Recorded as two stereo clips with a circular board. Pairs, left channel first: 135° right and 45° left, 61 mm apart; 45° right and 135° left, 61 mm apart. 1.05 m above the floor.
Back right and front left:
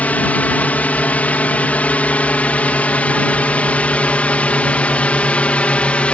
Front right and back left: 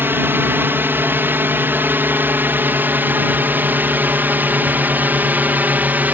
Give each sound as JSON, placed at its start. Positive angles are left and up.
{"t": 0.0, "sound": "a drone", "azimuth_deg": 170}